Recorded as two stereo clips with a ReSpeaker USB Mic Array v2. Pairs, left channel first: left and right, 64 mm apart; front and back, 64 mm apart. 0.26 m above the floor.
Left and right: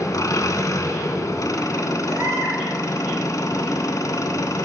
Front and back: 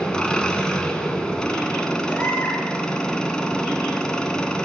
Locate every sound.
0.0 s an engine running: 75° left, 0.8 m
2.1 s a baby crying: 55° right, 3 m